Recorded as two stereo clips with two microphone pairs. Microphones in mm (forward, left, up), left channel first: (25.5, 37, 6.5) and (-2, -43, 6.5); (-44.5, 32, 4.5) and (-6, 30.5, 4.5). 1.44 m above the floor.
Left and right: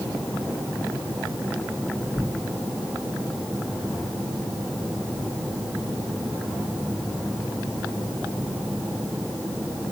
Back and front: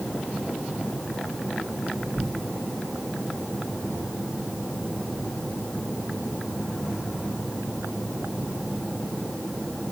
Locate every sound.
2.1 s tearing paper: 20° left, 0.9 m